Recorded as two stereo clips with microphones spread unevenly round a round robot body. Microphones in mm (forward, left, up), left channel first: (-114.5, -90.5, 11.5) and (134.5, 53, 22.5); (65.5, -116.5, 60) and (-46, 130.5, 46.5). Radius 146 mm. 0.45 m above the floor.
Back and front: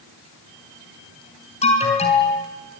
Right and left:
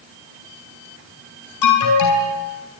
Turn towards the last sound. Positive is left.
turn(degrees=-80)